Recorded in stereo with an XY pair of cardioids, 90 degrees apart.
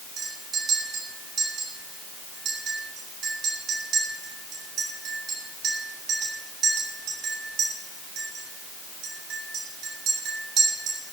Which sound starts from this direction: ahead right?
A clink, at 0.2 s.